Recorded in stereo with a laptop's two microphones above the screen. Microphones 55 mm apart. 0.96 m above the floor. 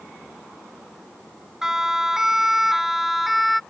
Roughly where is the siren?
Centre.